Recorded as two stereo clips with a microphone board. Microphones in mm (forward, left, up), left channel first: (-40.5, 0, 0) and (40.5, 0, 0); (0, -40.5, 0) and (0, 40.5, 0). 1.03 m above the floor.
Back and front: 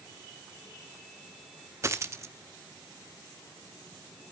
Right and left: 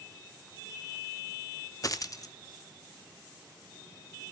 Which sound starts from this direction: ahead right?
A dropped coin, at 1.8 s.